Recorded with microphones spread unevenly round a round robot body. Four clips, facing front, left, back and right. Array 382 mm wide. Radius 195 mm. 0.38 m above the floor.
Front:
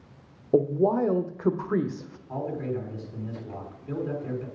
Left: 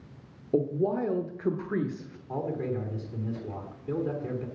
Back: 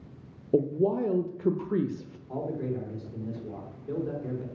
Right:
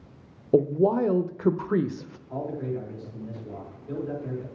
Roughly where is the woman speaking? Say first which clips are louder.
Right 6 dB, front 3 dB; right.